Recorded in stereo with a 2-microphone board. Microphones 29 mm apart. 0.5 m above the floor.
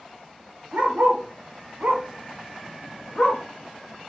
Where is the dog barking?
85° right, 1.0 m; by 3.4 s 25° left (ahead or behind), 0.8 m.